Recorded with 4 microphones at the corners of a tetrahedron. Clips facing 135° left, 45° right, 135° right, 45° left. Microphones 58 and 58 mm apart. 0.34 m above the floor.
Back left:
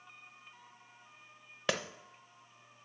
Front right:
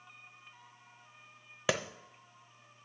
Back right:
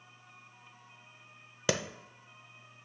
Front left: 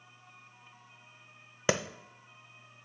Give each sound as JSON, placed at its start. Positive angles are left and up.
{"t": 1.7, "sound": "a clap", "azimuth_deg": 35, "distance_m": 0.7}